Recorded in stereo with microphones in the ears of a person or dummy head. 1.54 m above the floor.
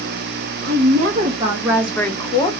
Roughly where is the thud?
No thud in this recording.